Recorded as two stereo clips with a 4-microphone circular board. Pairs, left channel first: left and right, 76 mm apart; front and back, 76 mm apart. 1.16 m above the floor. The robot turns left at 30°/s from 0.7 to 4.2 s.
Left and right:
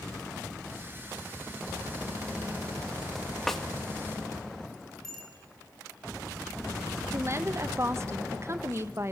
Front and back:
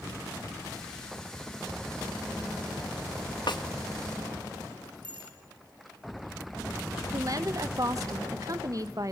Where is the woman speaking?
140° right, 1.2 m.